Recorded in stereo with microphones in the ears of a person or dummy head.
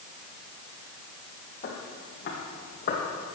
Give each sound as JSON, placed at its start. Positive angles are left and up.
{"t": 1.6, "sound": "footsteps", "side_deg": 45, "distance_m": 2.0}